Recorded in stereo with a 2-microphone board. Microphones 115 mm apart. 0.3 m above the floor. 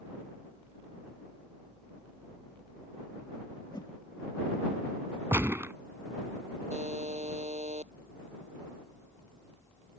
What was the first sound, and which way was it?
A whoosh, 35° left (ahead or behind).